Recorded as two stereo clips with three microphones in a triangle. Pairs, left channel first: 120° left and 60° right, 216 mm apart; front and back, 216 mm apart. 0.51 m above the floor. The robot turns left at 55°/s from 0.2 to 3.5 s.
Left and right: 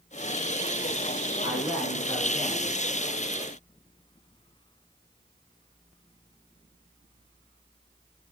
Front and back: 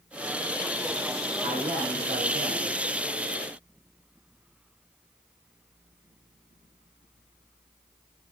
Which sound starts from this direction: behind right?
A man speaking, at 1.4 s.